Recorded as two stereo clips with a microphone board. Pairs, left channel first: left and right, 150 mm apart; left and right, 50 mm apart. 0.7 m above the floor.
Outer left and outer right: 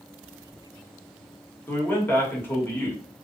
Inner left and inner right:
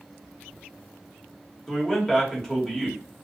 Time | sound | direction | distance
1.7 | a man speaking | 15° left (ahead or behind) | 1.0 m